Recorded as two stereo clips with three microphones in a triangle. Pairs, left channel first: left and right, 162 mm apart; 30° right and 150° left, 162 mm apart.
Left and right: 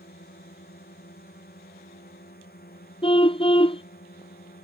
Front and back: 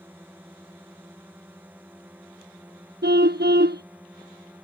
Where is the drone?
70° left.